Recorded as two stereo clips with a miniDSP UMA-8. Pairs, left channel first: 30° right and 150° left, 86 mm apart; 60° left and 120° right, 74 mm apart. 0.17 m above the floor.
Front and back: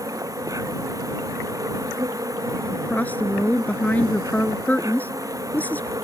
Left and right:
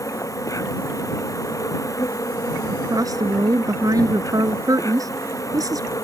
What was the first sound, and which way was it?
An insect, 105° left.